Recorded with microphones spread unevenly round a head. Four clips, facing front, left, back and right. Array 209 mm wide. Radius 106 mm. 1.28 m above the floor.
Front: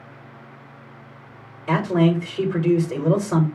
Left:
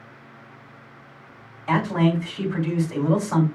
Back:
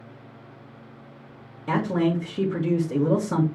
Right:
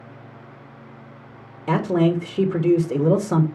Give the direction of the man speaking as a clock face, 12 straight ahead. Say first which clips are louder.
Right 2 dB, front 4 dB; 3 o'clock.